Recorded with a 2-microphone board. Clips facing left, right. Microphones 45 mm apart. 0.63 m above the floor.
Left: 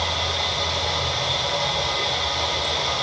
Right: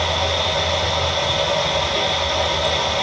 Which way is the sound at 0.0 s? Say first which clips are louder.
Right 4 dB; 85° right.